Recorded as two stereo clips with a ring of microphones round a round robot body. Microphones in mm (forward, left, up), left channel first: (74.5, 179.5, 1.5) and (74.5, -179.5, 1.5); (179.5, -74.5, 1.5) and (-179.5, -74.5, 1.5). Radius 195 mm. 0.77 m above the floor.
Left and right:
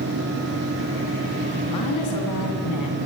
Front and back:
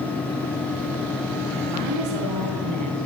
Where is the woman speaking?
135° left, 6 m.